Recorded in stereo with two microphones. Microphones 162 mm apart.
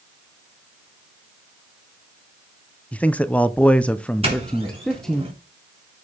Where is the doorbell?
35° right (ahead or behind), 3 m.